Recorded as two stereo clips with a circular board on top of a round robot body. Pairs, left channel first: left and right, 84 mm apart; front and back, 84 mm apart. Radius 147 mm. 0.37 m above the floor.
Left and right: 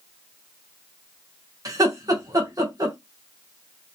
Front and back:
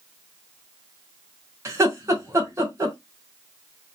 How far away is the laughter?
About 1.7 m.